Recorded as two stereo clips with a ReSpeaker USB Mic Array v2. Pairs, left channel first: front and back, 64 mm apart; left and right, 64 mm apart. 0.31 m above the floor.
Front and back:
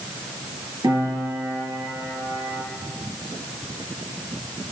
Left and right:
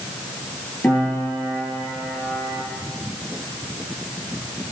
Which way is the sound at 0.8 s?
160° left.